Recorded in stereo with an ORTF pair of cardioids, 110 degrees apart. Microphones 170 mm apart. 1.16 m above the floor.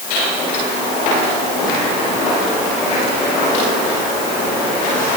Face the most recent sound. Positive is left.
No sound to turn to.